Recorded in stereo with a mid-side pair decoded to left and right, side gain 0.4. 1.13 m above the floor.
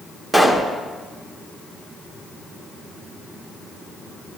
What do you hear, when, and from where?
0.3 s a pop: 15° right, 2 m